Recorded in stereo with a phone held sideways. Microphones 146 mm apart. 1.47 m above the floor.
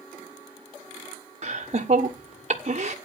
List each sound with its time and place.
1.4 s laughter: 50° right (ahead or behind), 1.2 m